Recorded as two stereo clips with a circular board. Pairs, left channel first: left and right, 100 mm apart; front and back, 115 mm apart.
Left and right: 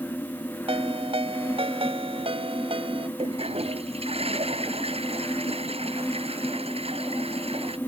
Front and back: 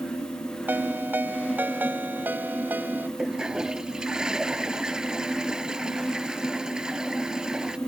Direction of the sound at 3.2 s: 95° right.